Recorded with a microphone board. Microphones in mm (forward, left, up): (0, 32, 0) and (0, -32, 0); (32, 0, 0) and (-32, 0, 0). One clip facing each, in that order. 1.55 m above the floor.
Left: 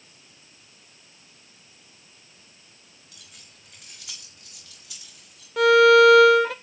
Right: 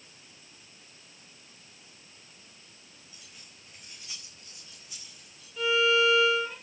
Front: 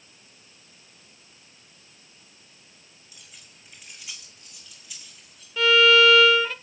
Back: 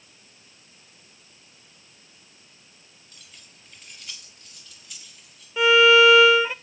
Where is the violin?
110° left, 1.0 m.